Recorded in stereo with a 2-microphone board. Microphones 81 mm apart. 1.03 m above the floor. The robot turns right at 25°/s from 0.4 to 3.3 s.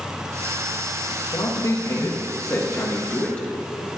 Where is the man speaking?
115° left, 0.9 m; by 3.5 s 165° left, 0.9 m.